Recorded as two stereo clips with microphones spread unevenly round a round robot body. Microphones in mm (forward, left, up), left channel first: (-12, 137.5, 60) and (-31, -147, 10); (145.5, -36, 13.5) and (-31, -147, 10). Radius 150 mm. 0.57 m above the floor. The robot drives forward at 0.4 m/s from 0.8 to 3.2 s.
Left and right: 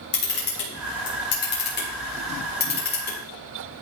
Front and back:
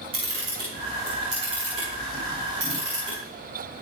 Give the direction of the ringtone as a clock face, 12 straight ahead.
I don't hear a ringtone.